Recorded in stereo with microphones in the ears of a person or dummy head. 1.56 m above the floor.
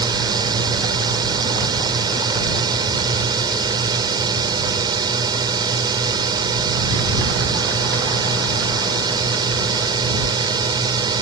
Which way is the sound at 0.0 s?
25° right (ahead or behind).